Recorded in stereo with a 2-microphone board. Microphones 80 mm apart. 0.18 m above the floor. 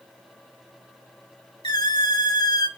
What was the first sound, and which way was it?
A squeak, 65° left (ahead or behind).